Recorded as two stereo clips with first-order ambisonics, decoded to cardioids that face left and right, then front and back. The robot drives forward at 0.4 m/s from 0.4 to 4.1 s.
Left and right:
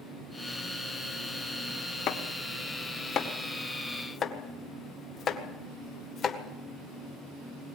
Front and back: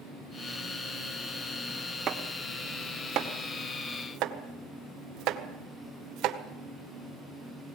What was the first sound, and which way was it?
Chopping, 120° left.